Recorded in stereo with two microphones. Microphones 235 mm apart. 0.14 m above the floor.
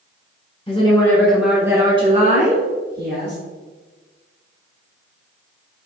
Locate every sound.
0.7 s a woman speaking: 25° left (ahead or behind), 1.2 m; by 3.4 s 50° right (ahead or behind), 1.8 m